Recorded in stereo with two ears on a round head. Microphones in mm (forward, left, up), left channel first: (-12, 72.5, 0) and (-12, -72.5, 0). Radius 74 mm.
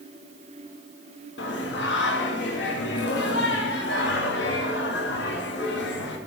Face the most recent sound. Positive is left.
turn(degrees=80)